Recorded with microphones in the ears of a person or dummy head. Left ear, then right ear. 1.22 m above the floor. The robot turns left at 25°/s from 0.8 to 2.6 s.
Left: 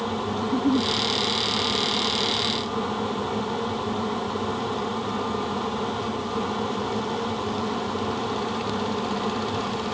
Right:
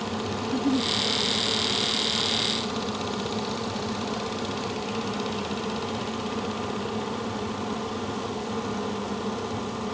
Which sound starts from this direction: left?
A giggle, at 0.4 s.